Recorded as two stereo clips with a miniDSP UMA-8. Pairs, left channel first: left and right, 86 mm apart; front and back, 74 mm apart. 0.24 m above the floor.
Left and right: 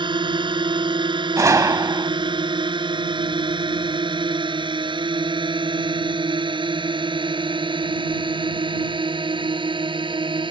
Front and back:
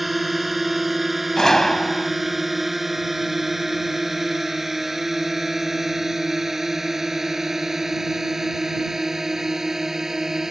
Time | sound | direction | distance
0.0 | a drone | 90° right | ?
1.4 | a gunshot | 80° right | ?